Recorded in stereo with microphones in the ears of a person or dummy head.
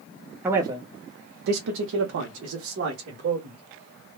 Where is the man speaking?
10° right (ahead or behind), 0.6 m; by 3.6 s 55° right (ahead or behind), 1.4 m.